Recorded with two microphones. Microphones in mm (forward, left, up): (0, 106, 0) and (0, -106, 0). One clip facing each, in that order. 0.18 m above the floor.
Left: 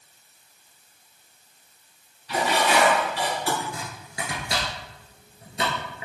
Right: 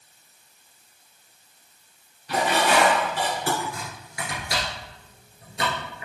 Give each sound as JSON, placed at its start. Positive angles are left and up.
{"t": 2.3, "sound": "dishes clattering", "side_deg": -50, "distance_m": 1.8}
{"t": 3.6, "sound": "chopping", "side_deg": 25, "distance_m": 1.7}